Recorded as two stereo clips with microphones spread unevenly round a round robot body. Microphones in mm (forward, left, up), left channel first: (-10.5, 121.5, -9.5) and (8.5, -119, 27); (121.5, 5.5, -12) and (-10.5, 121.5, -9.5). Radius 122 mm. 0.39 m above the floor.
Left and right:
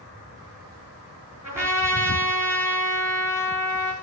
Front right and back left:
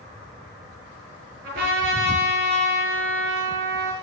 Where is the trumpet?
165° right, 6.5 m.